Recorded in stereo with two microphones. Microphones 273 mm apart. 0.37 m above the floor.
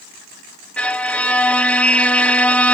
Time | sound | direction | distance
0.8 | a violin | 5° left (ahead or behind) | 0.6 m